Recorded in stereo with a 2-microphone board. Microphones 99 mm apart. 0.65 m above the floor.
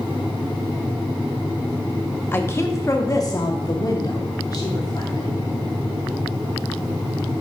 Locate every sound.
2.3 s a woman speaking: 20° left (ahead or behind), 0.7 m; by 5.3 s 45° left (ahead or behind), 2 m